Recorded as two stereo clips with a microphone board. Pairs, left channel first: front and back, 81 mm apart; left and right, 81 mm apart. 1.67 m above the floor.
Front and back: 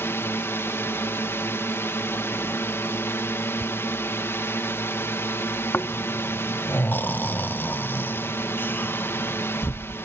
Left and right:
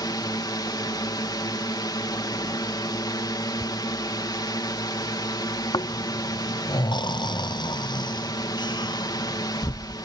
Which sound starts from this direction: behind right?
Ticking, at 3.6 s.